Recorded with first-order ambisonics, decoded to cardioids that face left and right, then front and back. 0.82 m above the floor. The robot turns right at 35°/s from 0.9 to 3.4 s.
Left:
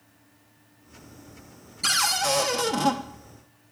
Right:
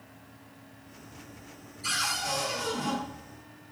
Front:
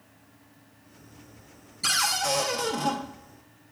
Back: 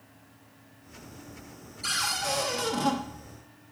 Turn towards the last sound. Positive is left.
turn(degrees=120)